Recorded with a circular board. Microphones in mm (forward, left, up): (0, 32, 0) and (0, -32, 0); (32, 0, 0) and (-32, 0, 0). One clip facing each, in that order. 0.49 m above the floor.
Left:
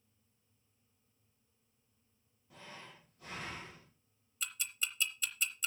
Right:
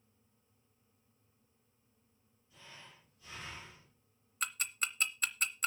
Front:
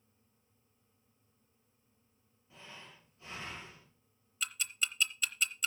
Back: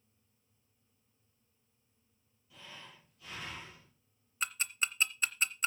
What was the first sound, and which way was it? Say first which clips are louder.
Breathing: left 4 dB, even; 65° left.